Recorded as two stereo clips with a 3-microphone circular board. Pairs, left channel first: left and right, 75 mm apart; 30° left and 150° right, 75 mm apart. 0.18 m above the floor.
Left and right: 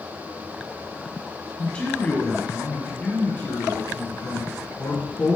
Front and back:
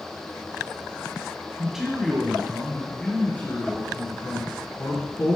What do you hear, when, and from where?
1.6 s a man speaking: 145° left, 1.8 m; by 5.3 s 50° left, 2.5 m